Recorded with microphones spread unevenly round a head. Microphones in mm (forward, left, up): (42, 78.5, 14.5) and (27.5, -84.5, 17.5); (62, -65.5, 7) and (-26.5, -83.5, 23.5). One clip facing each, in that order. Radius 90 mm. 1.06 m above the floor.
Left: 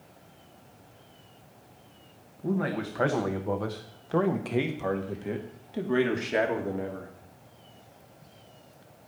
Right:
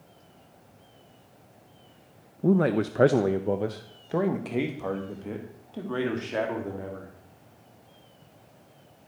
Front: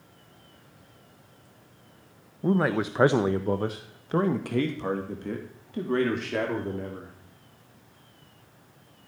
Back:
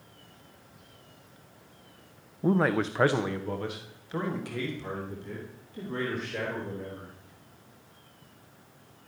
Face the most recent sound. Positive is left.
turn(degrees=15)